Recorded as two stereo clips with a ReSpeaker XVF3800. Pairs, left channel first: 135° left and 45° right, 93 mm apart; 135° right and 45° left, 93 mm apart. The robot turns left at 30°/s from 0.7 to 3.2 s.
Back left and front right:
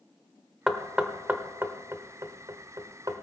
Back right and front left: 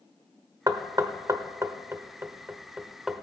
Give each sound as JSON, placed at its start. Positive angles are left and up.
{"t": 0.7, "sound": "knocking", "azimuth_deg": 35, "distance_m": 0.9}